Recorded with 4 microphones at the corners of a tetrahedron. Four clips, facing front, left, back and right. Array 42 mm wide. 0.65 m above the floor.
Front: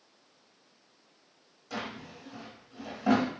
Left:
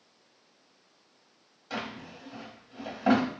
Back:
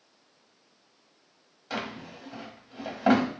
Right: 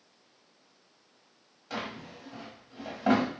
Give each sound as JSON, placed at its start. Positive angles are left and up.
{"t": 1.7, "sound": "a drawer", "azimuth_deg": 180, "distance_m": 1.0}